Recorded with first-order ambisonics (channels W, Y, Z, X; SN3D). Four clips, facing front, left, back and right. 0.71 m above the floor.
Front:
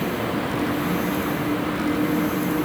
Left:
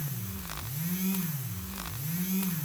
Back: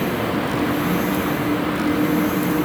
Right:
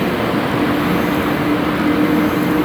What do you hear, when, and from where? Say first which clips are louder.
0.0 s a vehicle: right 24 dB, back 3 dB; 100° right